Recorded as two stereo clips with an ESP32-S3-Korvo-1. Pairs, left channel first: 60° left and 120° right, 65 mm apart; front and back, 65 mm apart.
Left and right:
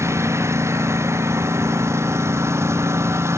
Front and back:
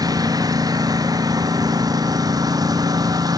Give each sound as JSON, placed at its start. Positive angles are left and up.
{"t": 0.0, "sound": "a lawn mower", "azimuth_deg": -165}